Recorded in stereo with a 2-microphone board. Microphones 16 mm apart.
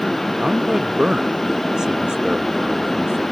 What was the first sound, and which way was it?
A man speaking, 55° right (ahead or behind).